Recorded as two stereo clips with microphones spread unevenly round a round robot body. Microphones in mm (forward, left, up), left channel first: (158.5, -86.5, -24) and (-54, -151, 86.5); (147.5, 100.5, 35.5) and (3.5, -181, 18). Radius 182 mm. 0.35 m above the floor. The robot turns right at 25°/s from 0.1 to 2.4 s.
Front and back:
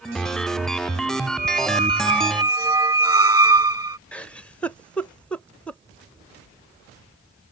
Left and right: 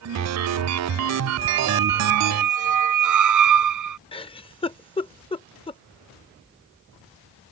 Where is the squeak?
115° right; by 4.0 s 90° right.